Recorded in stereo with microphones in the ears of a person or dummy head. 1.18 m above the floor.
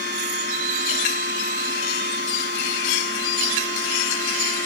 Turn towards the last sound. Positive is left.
turn(degrees=30)  # may be behind; listen again after turning